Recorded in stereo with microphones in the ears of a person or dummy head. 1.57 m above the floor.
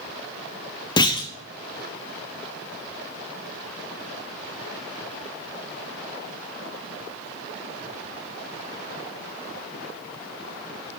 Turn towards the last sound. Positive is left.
turn(degrees=20)  # may be behind; listen again after turning